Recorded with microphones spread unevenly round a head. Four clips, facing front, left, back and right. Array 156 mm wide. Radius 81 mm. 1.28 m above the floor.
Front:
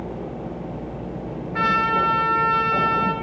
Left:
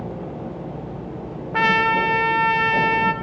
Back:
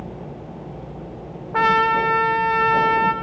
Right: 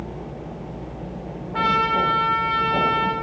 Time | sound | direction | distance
1.5 | a trumpet | 160° left | 1.1 m